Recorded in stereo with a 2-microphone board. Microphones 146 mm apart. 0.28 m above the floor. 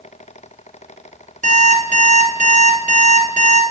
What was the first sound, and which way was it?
An alarm clock, 60° right (ahead or behind).